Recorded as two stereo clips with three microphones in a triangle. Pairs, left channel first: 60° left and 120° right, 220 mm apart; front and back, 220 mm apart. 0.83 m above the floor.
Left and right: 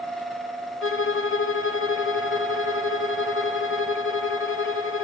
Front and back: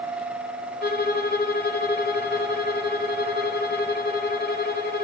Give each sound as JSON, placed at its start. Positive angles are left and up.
{"t": 0.8, "sound": "a violin", "azimuth_deg": 45, "distance_m": 1.1}